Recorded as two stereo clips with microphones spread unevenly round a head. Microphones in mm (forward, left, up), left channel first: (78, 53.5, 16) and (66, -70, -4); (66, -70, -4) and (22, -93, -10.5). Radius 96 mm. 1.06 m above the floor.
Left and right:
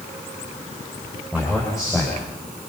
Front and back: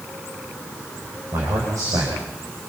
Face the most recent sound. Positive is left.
turn(degrees=175)